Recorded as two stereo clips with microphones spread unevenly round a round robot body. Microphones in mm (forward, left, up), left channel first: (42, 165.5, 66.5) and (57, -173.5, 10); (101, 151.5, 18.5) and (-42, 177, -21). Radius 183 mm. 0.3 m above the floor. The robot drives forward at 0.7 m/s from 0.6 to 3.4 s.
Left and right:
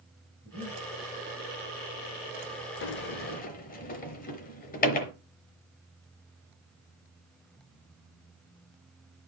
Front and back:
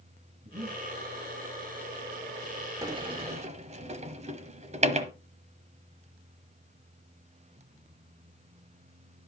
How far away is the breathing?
About 6 m.